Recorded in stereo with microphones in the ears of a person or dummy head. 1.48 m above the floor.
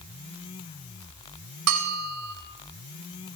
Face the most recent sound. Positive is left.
turn(degrees=-85)